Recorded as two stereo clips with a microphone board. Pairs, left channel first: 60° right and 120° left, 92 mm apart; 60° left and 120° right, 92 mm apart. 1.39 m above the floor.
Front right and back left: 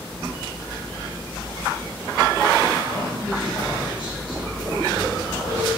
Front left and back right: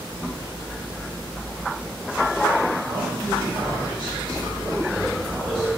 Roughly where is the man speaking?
Behind right.